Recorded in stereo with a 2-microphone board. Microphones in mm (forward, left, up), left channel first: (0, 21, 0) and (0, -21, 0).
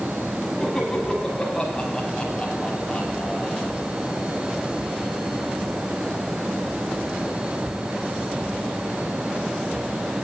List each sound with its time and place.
0.6 s laughter: 10° left (ahead or behind), 6 m; by 3.7 s 20° left (ahead or behind), 4 m